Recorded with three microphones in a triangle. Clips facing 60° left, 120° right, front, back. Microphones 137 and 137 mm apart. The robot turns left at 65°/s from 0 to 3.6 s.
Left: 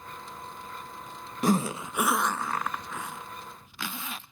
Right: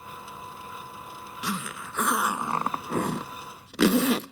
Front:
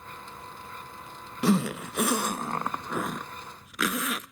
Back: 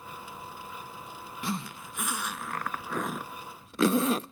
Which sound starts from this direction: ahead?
A zipper, at 1.4 s.